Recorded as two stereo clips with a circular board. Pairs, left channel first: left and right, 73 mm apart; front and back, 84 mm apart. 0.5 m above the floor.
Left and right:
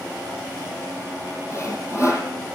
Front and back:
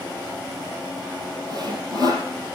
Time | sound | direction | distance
1.5 | sawing | 140° left | 4.5 m